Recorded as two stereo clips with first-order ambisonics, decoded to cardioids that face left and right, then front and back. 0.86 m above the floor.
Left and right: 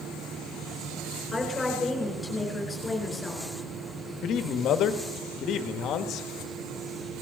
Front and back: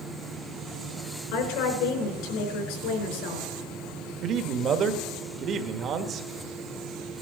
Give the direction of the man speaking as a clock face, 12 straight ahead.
8 o'clock.